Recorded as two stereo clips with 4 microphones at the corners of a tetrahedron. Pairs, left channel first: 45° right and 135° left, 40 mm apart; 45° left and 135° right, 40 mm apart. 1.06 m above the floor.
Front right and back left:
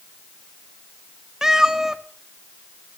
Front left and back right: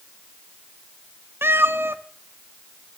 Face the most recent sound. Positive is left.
turn(degrees=-145)